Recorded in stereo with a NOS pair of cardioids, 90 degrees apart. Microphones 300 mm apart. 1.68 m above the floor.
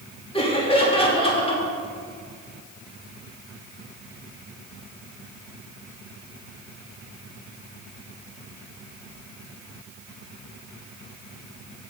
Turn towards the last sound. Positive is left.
turn(degrees=20)